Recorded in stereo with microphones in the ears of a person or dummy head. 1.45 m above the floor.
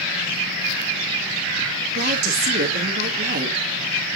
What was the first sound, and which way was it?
A woman speaking, 55° right (ahead or behind).